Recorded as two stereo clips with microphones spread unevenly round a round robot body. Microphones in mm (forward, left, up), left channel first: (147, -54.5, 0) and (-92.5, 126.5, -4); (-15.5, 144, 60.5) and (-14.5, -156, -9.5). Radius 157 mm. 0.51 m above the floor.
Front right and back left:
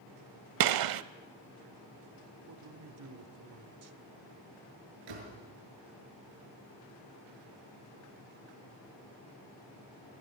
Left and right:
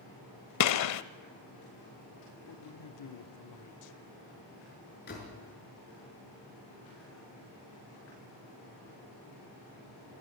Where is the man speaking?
115° left, 1.5 m.